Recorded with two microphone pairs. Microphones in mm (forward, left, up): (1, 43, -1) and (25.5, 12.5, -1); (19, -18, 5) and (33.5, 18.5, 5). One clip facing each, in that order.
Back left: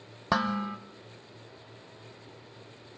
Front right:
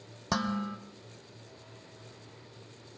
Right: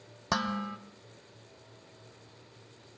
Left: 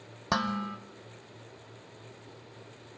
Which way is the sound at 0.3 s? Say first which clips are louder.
Back left 4 dB, left 1 dB; 150° left.